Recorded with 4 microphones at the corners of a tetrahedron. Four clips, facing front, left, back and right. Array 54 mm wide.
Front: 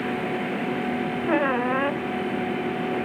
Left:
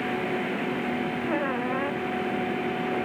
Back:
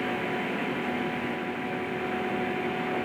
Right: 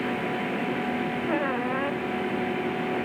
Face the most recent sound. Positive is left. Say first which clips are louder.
# right 1 dB, front 9 dB
turn(degrees=0)